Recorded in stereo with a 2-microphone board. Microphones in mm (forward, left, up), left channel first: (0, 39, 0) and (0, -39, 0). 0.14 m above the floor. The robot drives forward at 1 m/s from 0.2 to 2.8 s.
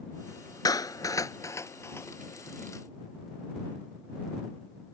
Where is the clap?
55° left (ahead or behind); by 2.1 s 30° left (ahead or behind).